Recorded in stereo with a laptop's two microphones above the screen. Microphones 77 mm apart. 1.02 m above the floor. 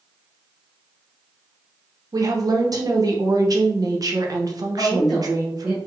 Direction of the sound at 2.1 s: 50° right (ahead or behind).